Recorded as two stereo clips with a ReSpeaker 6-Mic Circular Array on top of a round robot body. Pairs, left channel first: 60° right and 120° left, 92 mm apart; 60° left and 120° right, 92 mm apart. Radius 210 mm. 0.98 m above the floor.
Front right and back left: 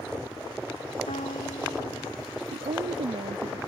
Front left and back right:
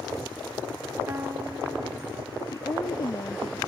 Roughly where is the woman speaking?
Left.